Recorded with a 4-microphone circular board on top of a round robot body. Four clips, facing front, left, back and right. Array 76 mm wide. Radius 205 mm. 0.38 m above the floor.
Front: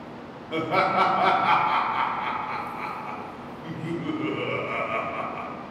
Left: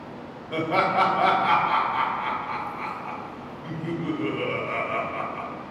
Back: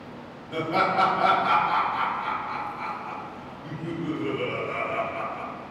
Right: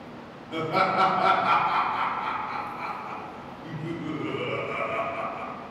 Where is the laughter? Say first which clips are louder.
Left 2 dB, front 1 dB; 35° left, 1.3 m.